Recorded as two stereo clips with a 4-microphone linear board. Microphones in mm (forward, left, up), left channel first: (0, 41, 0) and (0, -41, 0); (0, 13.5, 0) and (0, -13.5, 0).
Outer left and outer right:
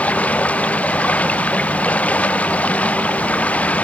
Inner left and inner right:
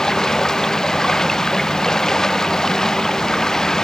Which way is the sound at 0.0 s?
15° left (ahead or behind).